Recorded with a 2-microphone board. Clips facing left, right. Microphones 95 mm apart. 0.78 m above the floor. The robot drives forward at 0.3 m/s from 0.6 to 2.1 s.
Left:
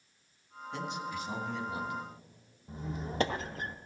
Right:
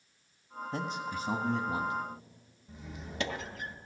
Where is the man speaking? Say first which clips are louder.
Right 1 dB; 40° right (ahead or behind), 1.2 m.